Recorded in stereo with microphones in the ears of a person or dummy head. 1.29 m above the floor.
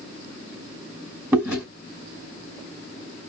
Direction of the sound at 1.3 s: 15° right (ahead or behind).